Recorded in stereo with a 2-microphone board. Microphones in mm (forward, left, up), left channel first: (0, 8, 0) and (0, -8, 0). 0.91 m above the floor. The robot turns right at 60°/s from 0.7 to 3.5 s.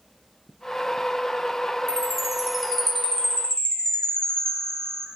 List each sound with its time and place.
1.9 s a chime: 35° right, 1.0 m; by 5.1 s 60° left, 1.0 m